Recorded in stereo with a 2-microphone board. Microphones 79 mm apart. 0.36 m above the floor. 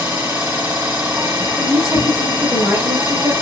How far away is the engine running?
About 2.5 m.